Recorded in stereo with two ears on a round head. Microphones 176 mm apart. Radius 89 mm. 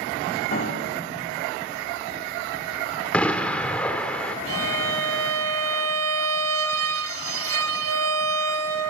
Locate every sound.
0.5 s a piano: 45° left (ahead or behind), 4 m
3.1 s an explosion: 5° left (ahead or behind), 2.0 m
4.5 s a violin: 90° right, 1.7 m